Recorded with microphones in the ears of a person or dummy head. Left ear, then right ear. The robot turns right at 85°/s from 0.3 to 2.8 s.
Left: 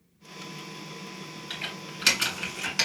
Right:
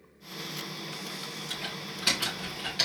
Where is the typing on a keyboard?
15° left (ahead or behind), 2 m; by 2.9 s 45° left (ahead or behind), 2 m.